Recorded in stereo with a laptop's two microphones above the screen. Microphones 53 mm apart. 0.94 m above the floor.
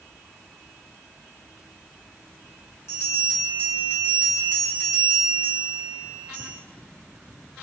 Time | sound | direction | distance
2.9 | a bell | 65° left (ahead or behind) | 2.0 m